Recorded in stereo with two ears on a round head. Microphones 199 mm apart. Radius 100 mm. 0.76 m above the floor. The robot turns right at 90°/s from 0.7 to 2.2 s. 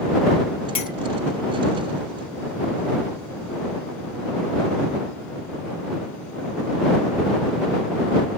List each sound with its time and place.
0.8 s a clink: 25° left (ahead or behind); by 0.9 s 40° left (ahead or behind)